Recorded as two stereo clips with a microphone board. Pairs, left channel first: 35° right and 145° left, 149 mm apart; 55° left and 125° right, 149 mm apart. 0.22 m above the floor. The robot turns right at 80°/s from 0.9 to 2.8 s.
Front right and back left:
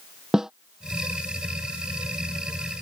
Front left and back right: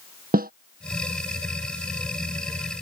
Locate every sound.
0.3 s a snare drum: 130° right